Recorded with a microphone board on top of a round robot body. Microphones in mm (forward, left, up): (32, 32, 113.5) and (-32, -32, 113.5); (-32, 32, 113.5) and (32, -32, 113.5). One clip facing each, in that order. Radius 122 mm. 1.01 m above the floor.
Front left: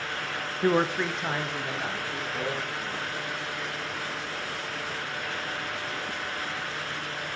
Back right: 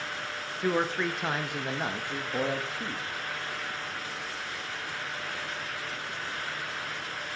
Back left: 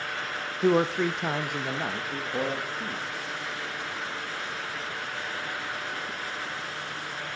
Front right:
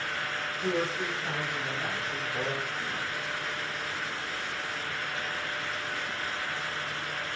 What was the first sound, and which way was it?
A man speaking, 105° left.